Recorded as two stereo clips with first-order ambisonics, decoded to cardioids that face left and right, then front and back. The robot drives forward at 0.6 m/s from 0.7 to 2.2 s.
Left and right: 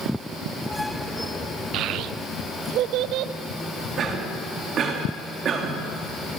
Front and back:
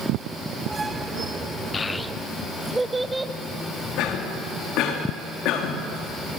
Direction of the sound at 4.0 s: 35° right.